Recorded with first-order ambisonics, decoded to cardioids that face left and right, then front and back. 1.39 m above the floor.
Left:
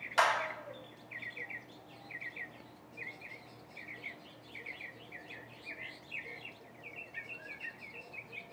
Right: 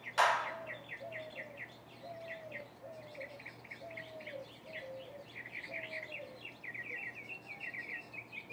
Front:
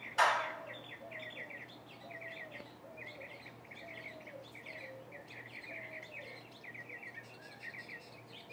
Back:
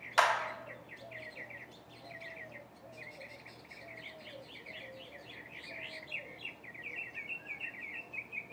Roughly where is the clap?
Behind.